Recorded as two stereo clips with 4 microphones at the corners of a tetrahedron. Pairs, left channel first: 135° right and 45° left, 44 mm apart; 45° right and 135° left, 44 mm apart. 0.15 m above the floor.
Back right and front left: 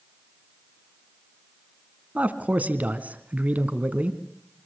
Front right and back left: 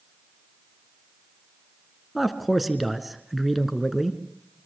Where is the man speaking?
50° left, 1.9 m.